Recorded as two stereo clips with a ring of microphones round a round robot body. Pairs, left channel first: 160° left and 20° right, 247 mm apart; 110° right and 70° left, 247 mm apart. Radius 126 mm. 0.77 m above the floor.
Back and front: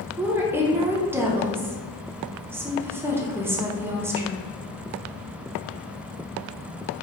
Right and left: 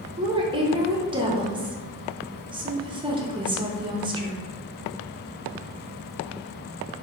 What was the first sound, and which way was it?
A woman speaking, 40° left.